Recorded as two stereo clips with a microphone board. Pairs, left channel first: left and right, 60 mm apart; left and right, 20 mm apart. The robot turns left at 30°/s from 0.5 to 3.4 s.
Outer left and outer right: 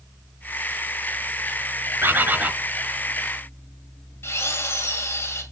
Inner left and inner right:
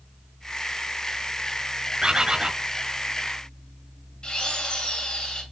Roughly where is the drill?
Left.